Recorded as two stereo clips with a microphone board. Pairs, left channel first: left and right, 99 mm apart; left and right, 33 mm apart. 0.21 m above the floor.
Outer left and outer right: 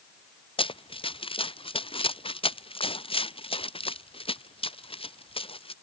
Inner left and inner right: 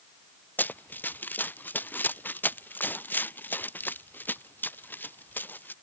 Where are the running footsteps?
65° left (ahead or behind); by 5.7 s 70° left (ahead or behind).